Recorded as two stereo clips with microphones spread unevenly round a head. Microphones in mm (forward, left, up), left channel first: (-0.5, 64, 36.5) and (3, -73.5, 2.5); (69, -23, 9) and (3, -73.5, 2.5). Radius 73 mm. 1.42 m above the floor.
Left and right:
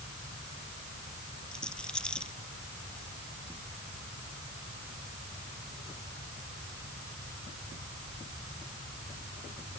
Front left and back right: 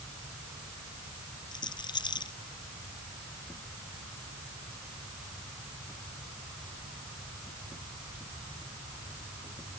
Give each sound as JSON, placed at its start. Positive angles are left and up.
{"t": 1.5, "sound": "a rattle", "azimuth_deg": 10}